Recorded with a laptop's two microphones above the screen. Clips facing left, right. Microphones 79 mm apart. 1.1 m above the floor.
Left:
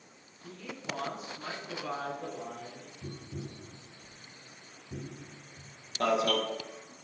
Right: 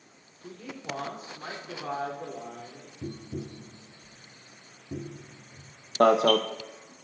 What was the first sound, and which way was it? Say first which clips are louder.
A man speaking: right 2 dB; 45° right (ahead or behind).